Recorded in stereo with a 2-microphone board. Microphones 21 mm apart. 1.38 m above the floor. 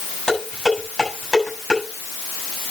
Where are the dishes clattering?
25° left (ahead or behind), 7.5 m.